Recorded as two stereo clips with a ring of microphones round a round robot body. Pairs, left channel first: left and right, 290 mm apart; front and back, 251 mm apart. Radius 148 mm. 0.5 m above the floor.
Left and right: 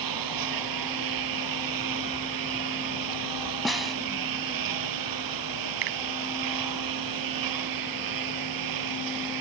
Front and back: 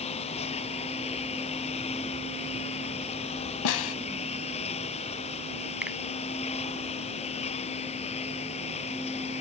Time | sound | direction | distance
0.0 | a lawn mower | 70° right | ?
3.6 | a snare drum | straight ahead | ?
5.8 | a finger snap | 95° right | ?